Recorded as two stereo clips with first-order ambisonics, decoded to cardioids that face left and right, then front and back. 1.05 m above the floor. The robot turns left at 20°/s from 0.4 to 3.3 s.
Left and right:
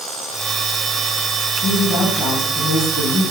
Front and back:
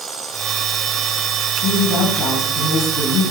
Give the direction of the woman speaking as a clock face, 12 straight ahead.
11 o'clock.